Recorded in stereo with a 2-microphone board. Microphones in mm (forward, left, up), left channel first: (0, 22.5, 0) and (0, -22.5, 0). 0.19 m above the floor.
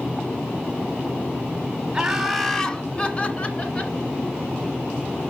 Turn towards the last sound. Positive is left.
turn(degrees=30)  # may be behind; listen again after turning